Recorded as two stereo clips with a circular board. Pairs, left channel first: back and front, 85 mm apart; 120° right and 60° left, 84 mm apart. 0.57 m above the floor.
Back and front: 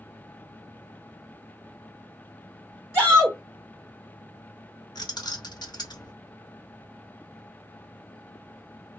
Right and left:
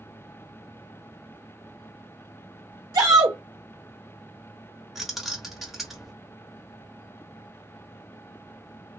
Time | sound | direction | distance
2.9 | a shout | 80° left | 1.3 m
5.0 | keys jangling | 145° left | 0.9 m